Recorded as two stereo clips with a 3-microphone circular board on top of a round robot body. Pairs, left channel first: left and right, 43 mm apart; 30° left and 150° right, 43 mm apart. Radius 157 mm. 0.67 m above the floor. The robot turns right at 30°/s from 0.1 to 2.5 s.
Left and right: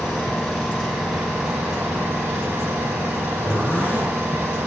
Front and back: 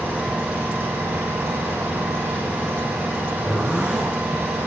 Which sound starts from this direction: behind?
An engine running, at 0.0 s.